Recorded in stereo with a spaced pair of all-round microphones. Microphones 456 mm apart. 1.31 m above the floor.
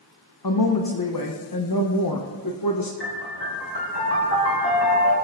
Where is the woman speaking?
50° left (ahead or behind), 0.9 m.